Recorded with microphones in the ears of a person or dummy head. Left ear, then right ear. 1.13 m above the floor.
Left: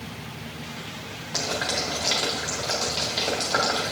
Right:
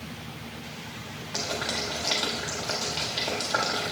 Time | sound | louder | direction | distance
1.3 | boiling | left 3 dB | 5° left (ahead or behind) | 1.4 m